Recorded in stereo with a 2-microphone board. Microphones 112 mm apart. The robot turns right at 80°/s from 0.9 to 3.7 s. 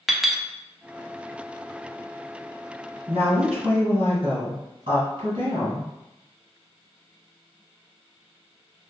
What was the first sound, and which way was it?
A clink, 5° right (ahead or behind).